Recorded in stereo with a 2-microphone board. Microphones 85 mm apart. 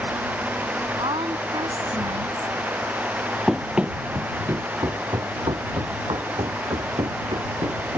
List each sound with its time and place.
1.0 s a woman speaking: 85° right; by 2.5 s 80° right
3.5 s running footsteps: centre (ahead or behind); by 8.0 s 80° right